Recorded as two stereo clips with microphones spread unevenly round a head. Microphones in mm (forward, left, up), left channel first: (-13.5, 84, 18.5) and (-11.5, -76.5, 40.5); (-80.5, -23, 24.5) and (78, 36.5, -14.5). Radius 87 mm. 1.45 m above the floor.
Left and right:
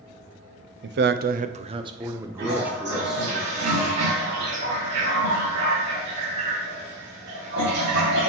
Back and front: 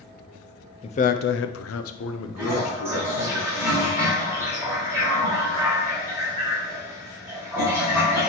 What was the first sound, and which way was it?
A man speaking, 95° right.